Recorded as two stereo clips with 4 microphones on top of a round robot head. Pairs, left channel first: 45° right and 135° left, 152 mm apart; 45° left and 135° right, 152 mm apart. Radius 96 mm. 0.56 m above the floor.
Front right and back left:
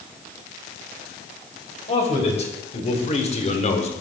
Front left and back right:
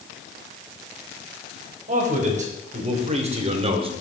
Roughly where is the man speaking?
Right.